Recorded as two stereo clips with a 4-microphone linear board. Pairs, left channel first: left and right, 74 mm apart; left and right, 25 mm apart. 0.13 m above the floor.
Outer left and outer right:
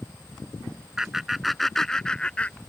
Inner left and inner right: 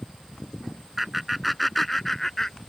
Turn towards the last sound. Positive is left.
turn(degrees=20)  # may be behind; listen again after turning